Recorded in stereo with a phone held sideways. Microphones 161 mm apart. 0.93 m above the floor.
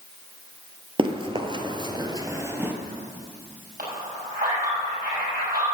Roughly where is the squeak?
No squeak in this recording.